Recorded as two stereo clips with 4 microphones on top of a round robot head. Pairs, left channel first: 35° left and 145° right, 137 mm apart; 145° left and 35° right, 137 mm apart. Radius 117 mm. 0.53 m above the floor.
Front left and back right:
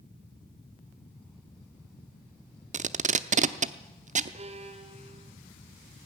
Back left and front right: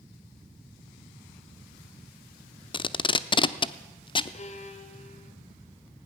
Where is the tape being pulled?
165° right, 0.8 m.